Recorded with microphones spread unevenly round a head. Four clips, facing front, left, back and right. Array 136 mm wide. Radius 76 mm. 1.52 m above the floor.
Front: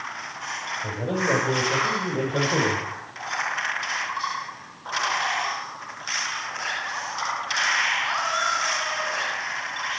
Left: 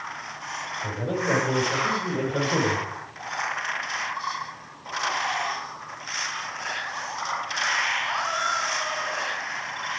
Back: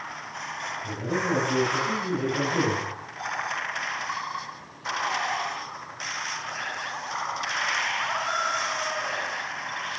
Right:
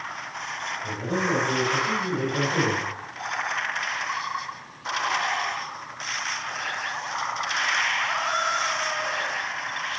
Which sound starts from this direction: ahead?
A man speaking, at 0.8 s.